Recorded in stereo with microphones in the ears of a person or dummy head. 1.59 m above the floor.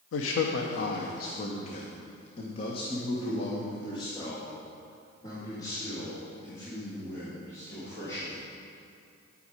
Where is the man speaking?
75° left (ahead or behind), 0.7 m; by 8.5 s 15° left (ahead or behind), 4.5 m.